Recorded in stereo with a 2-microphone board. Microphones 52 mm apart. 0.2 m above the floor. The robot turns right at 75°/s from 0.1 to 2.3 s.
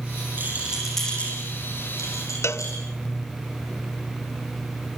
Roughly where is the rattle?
Right.